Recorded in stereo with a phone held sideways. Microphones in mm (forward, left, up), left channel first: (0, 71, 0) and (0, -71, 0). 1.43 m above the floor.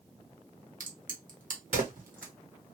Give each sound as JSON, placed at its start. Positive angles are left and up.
{"t": 0.8, "sound": "a crack", "side_deg": -70, "distance_m": 1.1}